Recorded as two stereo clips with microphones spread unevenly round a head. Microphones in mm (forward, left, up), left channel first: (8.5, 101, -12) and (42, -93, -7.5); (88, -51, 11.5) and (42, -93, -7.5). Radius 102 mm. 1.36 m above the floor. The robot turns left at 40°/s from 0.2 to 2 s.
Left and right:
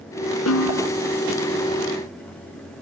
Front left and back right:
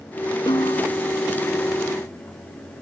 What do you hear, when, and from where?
0.5 s a snare drum: 95° left; by 0.9 s 75° left